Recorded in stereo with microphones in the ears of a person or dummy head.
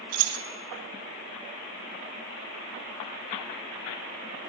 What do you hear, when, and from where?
0.1 s keys jangling: 80° right, 0.7 m